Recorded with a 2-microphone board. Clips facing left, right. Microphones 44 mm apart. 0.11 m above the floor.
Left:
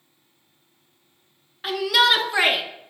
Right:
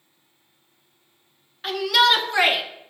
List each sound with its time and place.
1.6 s a shout: 5° left (ahead or behind), 1.2 m